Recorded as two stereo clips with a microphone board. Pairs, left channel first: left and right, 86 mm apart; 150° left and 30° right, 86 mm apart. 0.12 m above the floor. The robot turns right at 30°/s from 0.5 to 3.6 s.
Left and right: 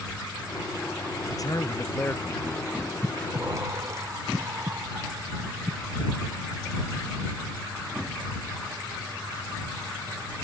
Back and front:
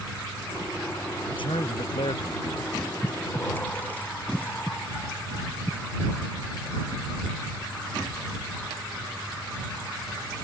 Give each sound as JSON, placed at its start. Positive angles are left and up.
{"t": 1.3, "sound": "a man speaking", "azimuth_deg": 135}
{"t": 3.0, "sound": "breathing", "azimuth_deg": -160}